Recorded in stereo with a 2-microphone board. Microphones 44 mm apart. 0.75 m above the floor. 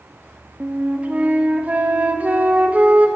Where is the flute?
35° right (ahead or behind), 0.8 m.